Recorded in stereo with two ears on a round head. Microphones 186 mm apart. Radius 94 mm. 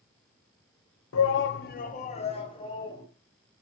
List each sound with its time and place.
1.1 s a shout: 75° left (ahead or behind), 0.7 m; by 3.0 s 20° left (ahead or behind), 1.8 m